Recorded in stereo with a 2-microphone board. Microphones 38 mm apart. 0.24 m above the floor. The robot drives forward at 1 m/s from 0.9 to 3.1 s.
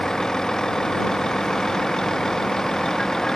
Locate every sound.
0.0 s a vehicle: 15° left (ahead or behind)